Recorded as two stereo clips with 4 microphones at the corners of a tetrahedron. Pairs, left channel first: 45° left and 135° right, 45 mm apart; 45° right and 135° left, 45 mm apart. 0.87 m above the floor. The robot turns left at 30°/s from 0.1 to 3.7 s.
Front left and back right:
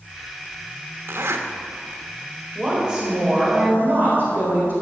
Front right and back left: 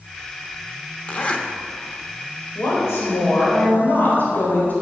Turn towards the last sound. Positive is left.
turn(degrees=-90)